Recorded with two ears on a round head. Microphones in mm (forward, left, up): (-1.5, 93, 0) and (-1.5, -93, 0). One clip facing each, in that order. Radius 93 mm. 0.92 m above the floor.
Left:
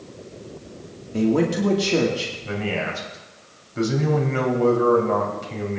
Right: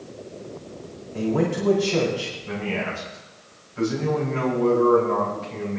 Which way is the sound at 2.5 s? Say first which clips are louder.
Left 2 dB; 70° left (ahead or behind).